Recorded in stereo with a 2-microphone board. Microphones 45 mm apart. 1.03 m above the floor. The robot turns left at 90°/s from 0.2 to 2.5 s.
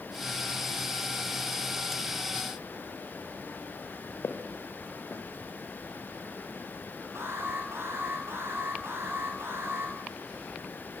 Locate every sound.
4.2 s footsteps: 70° left (ahead or behind), 2.5 m
7.2 s an alarm: 85° right, 8 m